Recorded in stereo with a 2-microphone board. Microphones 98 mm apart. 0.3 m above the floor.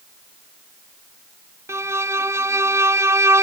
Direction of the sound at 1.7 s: 30° right (ahead or behind).